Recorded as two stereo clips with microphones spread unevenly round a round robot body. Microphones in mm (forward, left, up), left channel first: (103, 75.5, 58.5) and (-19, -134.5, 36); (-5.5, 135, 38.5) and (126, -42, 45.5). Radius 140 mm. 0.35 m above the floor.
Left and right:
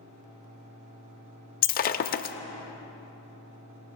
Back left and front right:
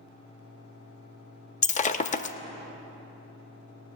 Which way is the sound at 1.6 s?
95° left.